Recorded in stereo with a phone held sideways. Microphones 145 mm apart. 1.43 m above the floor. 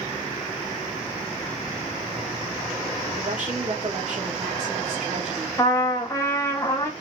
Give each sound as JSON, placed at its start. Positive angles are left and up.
{"t": 3.2, "sound": "a woman speaking", "side_deg": -50, "distance_m": 1.5}
{"t": 5.6, "sound": "a trumpet", "side_deg": 20, "distance_m": 1.0}